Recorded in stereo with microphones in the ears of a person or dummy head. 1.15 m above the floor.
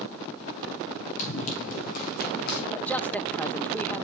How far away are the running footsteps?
About 3.5 m.